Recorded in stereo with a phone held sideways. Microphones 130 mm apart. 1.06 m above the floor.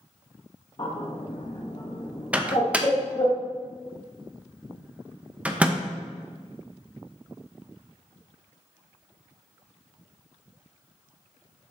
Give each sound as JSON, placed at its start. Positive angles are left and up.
{"t": 0.8, "sound": "a bird", "side_deg": 40, "distance_m": 0.9}
{"t": 2.3, "sound": "a microwave", "side_deg": -10, "distance_m": 0.6}